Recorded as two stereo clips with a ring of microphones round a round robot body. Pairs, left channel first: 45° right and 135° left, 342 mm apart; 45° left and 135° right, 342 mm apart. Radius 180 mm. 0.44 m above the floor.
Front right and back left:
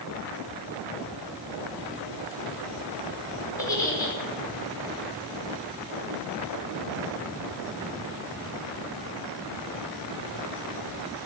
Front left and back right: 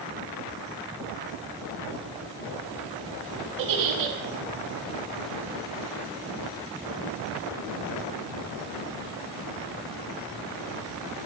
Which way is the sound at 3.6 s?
125° right.